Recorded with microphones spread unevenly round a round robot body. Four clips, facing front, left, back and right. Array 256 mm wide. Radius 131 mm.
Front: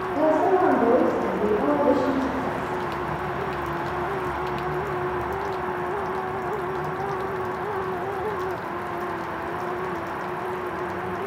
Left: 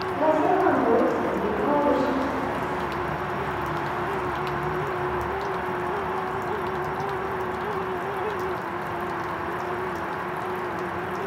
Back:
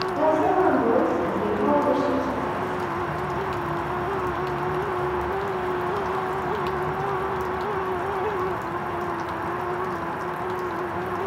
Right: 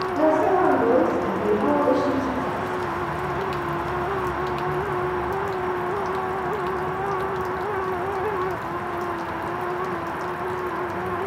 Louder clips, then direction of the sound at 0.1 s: Right 2 dB, front 1 dB; 15° right.